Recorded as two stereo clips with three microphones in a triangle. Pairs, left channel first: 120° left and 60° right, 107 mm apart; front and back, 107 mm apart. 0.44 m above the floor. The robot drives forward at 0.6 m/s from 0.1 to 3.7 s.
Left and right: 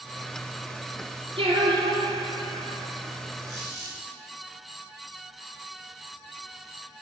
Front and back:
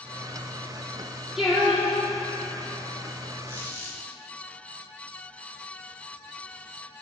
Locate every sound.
1.4 s singing: 90° right, 2 m; by 2.8 s 115° right, 2.5 m
3.5 s a squeak: 115° right, 3 m